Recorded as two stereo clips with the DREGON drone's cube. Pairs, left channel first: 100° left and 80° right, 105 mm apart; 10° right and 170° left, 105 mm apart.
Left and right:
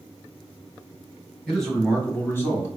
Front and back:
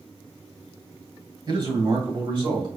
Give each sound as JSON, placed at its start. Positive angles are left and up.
{"t": 1.5, "sound": "a man speaking", "azimuth_deg": -170, "distance_m": 2.0}